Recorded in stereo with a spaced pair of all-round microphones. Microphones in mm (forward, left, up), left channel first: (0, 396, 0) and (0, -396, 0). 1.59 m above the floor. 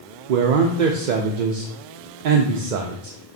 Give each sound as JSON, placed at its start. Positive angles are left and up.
{"t": 0.3, "sound": "a man speaking", "side_deg": -70, "distance_m": 0.6}